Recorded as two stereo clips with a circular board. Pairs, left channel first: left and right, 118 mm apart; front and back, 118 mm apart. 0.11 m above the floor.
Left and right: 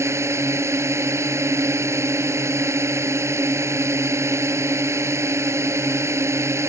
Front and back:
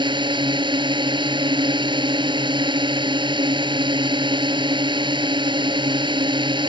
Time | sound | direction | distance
0.0 | a drone | 150° right | ?